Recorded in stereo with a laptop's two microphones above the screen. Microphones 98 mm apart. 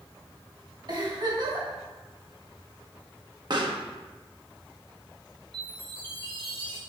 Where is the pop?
50° right (ahead or behind), 1.0 m.